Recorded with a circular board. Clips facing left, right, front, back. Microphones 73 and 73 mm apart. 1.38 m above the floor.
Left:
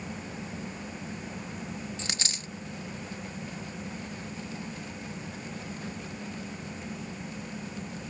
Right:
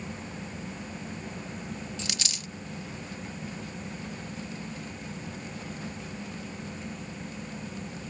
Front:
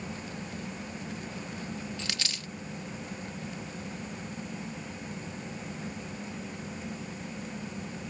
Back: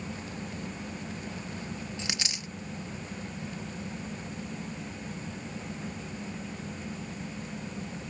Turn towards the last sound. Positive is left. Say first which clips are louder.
# even, back 1 dB
turn(degrees=120)